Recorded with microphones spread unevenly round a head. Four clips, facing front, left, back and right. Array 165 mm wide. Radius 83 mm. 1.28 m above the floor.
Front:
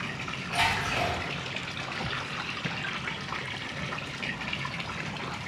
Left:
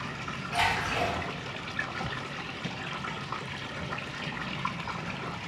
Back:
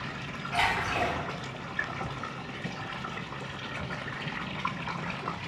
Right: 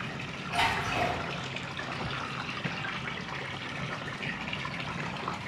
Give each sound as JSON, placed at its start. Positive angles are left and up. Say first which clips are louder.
{"t": 0.5, "sound": "a splash", "louder": "even, even", "azimuth_deg": 175, "distance_m": 1.2}